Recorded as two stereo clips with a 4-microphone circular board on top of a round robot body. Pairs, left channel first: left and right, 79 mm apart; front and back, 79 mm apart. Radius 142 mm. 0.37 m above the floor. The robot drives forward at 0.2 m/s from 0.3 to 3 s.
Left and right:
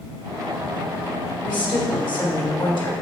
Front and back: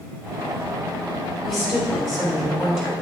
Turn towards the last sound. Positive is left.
turn(degrees=95)